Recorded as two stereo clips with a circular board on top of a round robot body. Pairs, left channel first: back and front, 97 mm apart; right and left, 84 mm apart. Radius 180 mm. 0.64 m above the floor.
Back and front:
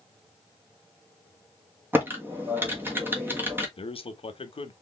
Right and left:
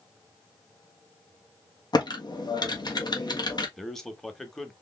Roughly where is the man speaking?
Behind.